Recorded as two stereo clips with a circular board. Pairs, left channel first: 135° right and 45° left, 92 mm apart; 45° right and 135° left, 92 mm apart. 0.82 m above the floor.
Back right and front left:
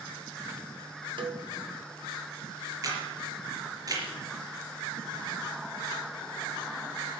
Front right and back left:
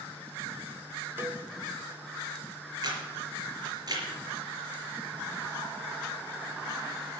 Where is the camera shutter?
90° left, 4 m.